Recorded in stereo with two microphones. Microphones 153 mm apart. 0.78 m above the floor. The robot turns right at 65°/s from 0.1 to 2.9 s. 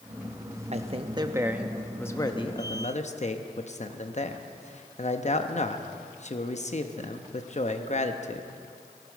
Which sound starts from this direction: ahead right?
A man speaking, at 0.7 s.